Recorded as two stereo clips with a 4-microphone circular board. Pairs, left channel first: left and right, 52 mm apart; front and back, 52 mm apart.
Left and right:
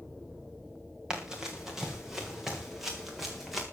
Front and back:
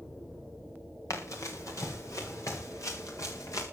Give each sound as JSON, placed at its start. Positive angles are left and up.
{"t": 1.1, "sound": "running footsteps", "azimuth_deg": -10, "distance_m": 5.0}